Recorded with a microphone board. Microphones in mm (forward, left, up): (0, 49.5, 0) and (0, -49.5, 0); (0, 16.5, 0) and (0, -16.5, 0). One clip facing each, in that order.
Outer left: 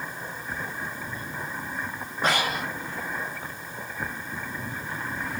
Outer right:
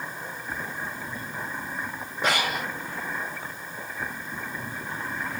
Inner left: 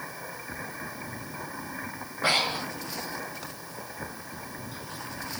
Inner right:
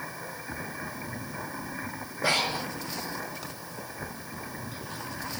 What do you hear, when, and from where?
2.2 s breathing: 45° left (ahead or behind), 2.5 m